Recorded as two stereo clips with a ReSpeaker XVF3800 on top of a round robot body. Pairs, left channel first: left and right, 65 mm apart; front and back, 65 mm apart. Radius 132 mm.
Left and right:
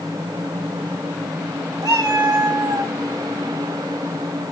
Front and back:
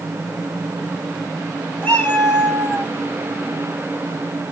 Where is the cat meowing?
65° right, 3.5 m.